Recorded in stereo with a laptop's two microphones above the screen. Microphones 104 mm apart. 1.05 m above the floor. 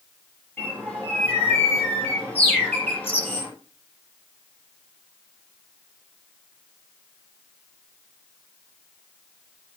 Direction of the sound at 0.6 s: 20° left (ahead or behind).